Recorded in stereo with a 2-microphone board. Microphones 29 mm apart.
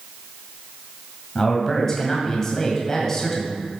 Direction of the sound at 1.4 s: 20° left (ahead or behind).